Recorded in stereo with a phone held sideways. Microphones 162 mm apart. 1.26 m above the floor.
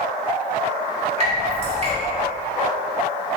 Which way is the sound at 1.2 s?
35° right (ahead or behind).